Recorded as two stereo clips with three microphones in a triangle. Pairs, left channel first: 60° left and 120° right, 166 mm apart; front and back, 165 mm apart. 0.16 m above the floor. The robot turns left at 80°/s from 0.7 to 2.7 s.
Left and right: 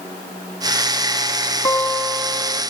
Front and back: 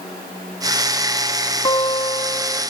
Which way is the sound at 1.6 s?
10° left.